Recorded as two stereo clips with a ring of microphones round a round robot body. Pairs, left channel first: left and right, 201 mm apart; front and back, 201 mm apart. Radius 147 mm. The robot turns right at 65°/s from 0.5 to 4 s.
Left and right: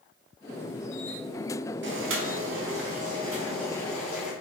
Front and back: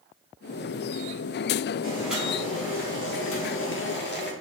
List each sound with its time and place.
1.8 s boiling: 110° right, 1.4 m; by 4.3 s 30° left, 1.4 m